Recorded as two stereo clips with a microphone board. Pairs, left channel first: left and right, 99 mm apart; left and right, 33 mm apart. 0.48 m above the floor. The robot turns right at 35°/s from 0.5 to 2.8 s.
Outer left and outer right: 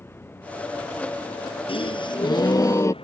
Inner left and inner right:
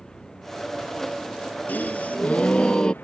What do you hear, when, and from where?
0.0 s a vehicle: 20° left; by 3.0 s 105° left
1.7 s a gasp: 110° left; by 2.9 s 145° left